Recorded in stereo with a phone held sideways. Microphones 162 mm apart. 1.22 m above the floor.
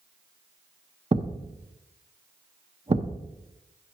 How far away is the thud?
About 0.8 m.